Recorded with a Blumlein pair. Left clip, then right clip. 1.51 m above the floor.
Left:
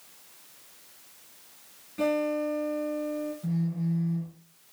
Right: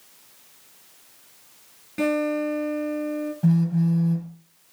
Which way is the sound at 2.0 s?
65° right.